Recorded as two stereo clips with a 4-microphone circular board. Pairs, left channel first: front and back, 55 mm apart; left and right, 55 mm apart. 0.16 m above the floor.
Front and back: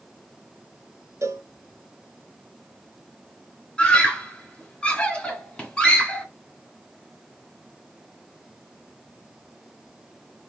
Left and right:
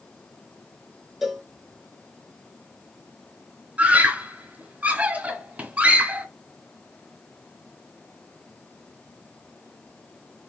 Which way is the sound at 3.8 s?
55° right.